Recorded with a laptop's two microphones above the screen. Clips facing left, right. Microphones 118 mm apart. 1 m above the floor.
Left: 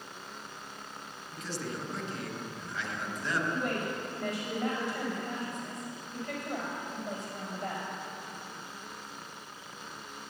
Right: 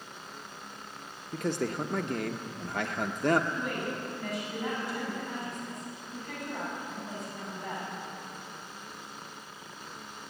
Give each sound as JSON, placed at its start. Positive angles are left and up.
{"t": 1.3, "sound": "a man speaking", "side_deg": -55, "distance_m": 0.7}
{"t": 3.5, "sound": "a woman speaking", "side_deg": 90, "distance_m": 4.5}